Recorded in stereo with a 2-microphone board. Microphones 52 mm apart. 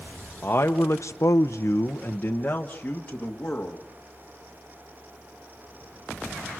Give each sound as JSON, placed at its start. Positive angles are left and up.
{"t": 0.4, "sound": "a man speaking", "side_deg": 40, "distance_m": 0.9}